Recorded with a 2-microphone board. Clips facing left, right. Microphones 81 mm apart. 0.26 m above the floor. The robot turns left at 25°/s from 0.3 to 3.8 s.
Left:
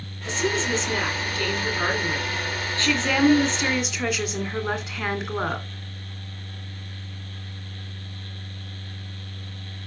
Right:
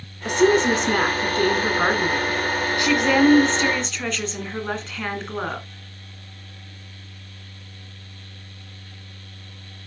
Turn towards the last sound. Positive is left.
turn(degrees=170)